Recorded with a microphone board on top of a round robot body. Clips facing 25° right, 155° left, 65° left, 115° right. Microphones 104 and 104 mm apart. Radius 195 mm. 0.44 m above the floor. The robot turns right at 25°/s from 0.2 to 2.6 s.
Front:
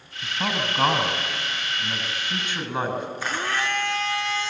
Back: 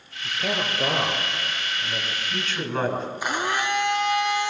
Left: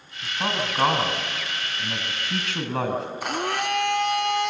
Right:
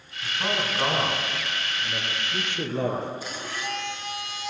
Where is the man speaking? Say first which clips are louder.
Even, left 1 dB; 5° right, 5.5 m; by 3.1 s 55° left, 5.5 m.